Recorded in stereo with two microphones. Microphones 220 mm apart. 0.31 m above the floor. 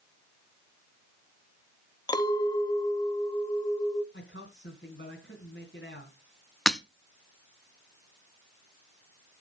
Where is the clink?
20° left (ahead or behind), 0.9 m.